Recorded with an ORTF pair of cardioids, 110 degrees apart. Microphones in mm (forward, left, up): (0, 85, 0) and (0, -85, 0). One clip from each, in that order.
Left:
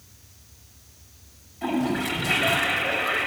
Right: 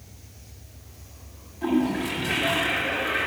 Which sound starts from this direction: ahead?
A toilet flushing, at 1.6 s.